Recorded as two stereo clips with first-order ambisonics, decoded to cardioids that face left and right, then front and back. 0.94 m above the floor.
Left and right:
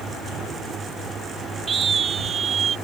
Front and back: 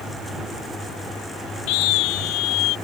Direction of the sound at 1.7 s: 20° right.